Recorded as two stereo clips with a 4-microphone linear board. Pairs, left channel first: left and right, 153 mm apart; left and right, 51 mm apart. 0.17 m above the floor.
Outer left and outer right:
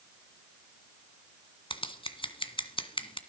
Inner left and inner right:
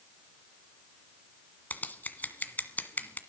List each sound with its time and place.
1.7 s scissors: 35° left (ahead or behind), 1.8 m